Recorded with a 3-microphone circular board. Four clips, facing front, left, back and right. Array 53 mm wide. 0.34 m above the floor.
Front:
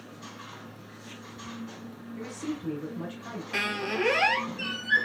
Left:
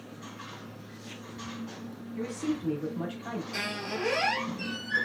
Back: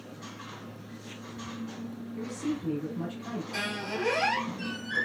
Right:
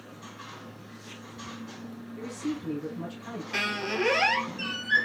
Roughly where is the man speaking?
Ahead left.